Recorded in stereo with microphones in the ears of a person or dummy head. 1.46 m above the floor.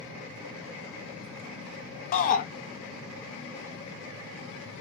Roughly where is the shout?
Left.